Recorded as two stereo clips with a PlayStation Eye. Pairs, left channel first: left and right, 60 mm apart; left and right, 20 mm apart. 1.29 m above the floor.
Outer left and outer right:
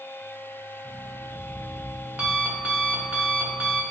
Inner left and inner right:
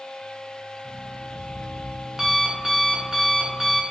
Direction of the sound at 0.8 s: 25° right (ahead or behind).